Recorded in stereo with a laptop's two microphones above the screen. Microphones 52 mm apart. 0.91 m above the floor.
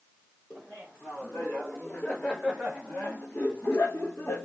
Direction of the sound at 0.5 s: 40° left (ahead or behind).